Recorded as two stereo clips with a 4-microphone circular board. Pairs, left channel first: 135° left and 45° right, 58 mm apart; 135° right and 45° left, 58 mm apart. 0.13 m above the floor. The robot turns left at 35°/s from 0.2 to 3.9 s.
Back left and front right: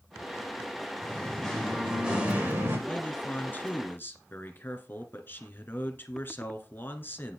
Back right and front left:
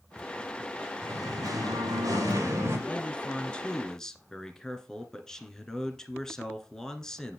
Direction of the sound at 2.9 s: 175° right.